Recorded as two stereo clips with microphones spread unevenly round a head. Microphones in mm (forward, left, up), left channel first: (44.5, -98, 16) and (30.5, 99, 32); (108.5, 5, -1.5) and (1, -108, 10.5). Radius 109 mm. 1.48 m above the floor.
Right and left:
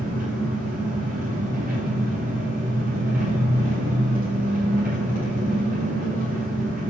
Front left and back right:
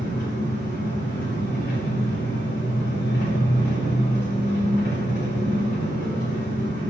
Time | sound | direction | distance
0.0 | an engine running | 50° left | 6 m